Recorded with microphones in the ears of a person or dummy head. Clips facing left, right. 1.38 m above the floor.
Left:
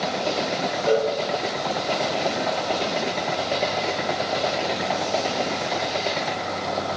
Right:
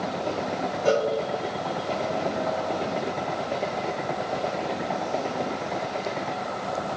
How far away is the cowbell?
About 1.4 m.